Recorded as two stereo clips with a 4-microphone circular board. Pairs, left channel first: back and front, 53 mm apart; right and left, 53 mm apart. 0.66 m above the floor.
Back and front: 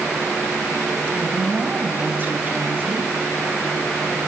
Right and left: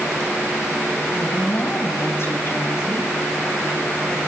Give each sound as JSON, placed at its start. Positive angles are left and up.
{"t": 1.1, "sound": "a woman speaking", "azimuth_deg": -50, "distance_m": 4.5}